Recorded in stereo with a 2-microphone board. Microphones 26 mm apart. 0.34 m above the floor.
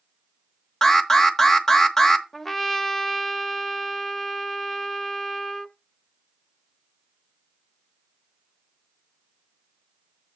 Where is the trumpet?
10° left (ahead or behind), 0.5 m.